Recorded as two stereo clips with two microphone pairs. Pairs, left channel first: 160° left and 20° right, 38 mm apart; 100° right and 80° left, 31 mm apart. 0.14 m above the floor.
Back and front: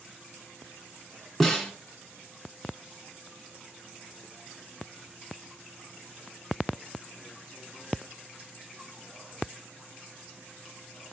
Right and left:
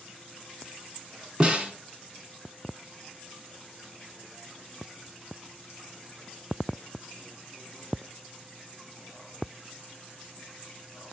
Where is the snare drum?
75° left, 1.8 m.